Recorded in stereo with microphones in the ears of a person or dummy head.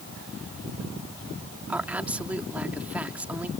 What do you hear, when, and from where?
1.7 s a woman speaking: 15° right (ahead or behind)